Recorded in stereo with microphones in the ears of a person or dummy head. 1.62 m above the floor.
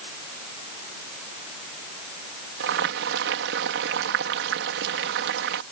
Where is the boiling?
70° right (ahead or behind).